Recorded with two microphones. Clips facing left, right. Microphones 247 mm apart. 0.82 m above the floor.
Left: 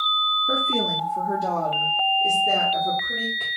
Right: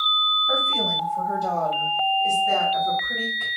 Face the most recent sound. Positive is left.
turn(degrees=40)  # may be behind; listen again after turning